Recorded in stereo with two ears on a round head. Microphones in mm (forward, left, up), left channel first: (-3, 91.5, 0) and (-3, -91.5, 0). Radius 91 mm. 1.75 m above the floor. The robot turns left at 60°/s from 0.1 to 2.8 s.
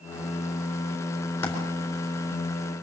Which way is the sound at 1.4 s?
10° left (ahead or behind).